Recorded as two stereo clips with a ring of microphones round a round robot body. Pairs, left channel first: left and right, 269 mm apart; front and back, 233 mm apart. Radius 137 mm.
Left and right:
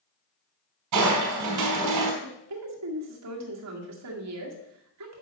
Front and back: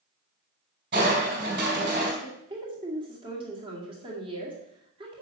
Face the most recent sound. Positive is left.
turn(degrees=-110)